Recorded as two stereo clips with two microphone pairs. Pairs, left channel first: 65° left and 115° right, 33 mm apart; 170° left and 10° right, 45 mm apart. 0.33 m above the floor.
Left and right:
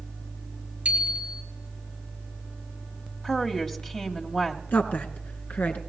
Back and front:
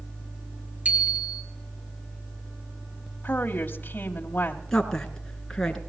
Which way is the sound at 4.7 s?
90° left.